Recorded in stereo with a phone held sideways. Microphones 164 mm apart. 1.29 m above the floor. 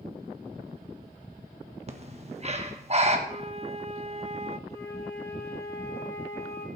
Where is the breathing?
40° right (ahead or behind), 1.4 m.